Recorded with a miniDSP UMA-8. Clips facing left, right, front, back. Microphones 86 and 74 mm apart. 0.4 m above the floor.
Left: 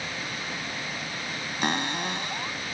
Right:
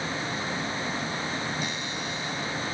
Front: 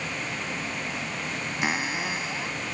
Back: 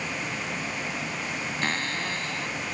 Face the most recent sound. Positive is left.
turn(degrees=75)